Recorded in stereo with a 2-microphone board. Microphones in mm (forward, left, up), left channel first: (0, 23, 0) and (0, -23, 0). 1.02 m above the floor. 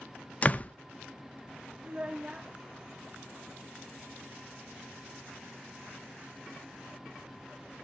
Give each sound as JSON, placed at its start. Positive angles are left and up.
{"t": 0.4, "sound": "a door slam", "side_deg": 30, "distance_m": 0.5}
{"t": 1.8, "sound": "a child speaking", "side_deg": -25, "distance_m": 0.5}